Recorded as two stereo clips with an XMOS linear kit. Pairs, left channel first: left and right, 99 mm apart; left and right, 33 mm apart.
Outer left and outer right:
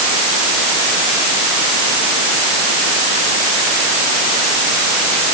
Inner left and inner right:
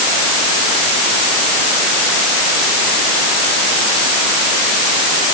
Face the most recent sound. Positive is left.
No sound to turn to.